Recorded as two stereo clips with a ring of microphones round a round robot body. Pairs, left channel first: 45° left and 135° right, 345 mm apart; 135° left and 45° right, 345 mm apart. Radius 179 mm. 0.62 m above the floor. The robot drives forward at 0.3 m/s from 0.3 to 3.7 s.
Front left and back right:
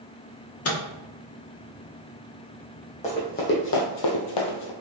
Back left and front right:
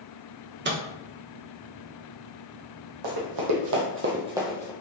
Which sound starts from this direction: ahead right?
Running footsteps, at 3.0 s.